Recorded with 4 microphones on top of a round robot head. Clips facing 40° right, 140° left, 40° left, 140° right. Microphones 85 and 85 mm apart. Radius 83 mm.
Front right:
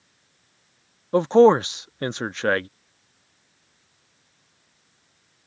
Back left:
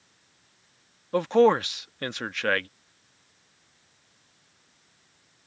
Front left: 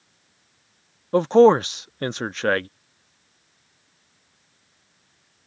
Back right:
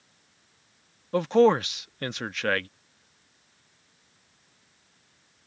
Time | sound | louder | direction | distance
1.1 | a man speaking | front right 5 dB, front left 6 dB | 5° left | ?